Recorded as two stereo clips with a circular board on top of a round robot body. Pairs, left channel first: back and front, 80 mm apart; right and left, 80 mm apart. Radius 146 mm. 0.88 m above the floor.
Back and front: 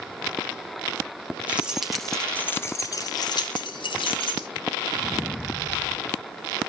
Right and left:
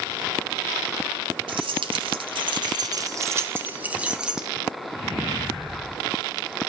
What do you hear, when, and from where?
1.5 s keys jangling: 75° left, 1.2 m; by 4.5 s 170° left, 1.8 m